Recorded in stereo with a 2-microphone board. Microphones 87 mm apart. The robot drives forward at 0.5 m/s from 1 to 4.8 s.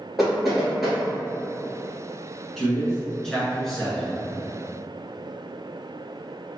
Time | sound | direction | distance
0.2 | knocking | centre (ahead or behind) | 2.0 m
2.6 | a man speaking | 5° left (ahead or behind) | 1.3 m